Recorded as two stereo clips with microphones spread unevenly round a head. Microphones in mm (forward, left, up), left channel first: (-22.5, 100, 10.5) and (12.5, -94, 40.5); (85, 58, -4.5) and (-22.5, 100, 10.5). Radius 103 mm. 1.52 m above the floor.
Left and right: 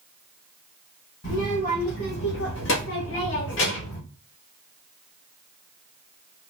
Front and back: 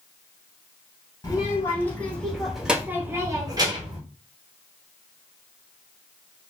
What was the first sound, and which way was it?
A child speaking, 40° left.